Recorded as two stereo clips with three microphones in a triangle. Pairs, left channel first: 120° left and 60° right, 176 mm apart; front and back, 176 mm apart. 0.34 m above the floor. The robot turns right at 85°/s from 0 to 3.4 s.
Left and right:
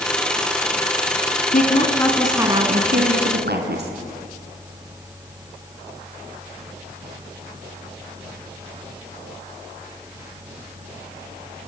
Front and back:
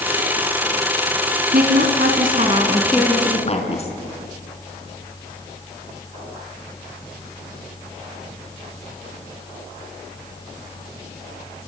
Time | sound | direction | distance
1.5 | a woman speaking | 150° left | 3.5 m